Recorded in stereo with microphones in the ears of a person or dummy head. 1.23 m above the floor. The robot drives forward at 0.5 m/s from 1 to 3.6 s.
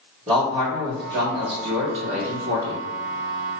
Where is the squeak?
I don't hear a squeak.